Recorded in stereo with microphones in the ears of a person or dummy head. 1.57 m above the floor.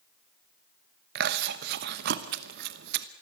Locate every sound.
1.1 s chewing: 55° right (ahead or behind), 1.0 m